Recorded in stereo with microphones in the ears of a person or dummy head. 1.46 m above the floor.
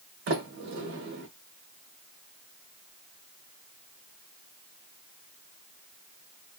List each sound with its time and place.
0.3 s a sliding door: 50° right (ahead or behind), 1.7 m